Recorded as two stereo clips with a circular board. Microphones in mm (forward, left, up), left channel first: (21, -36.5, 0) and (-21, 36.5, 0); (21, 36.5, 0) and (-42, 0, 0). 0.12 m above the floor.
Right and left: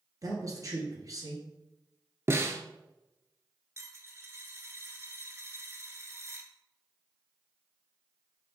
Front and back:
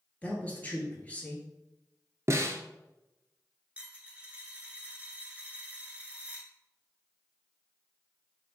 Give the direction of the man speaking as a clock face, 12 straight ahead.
9 o'clock.